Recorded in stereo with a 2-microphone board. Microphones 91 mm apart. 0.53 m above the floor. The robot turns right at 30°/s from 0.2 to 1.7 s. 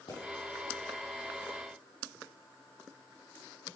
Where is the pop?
65° left (ahead or behind), 4 m.